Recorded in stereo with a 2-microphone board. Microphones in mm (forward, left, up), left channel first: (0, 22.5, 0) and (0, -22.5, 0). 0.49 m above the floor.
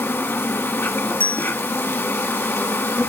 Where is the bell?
45° left (ahead or behind), 0.7 m.